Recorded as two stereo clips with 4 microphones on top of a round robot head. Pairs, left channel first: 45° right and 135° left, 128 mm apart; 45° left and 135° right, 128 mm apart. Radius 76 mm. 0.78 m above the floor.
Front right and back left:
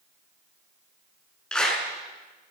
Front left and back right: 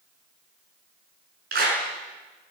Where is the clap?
130° right, 7 m.